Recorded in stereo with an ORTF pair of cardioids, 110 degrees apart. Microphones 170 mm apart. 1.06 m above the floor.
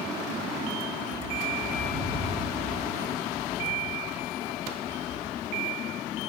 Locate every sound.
1.0 s a bird: 40° right, 2.5 m